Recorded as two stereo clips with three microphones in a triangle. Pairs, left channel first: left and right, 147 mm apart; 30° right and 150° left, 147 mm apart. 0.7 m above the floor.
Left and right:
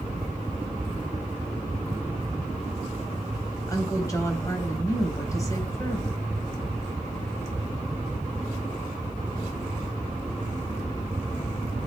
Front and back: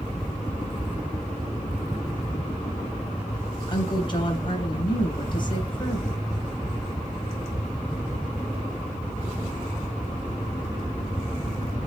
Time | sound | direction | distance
3.7 | a woman speaking | 25° left | 3.5 m